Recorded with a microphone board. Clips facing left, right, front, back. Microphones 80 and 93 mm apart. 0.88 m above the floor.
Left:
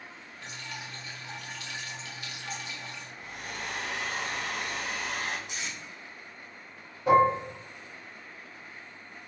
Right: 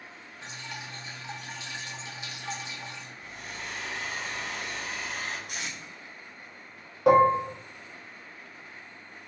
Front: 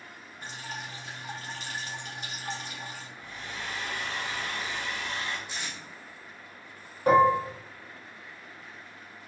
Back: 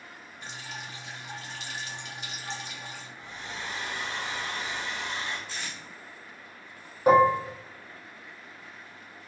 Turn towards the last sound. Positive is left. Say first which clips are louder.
# right 2 dB, back 1 dB
turn(degrees=-105)